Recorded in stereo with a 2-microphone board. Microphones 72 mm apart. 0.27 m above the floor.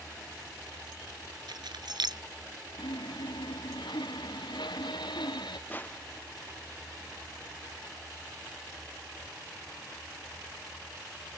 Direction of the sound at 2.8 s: 85° left.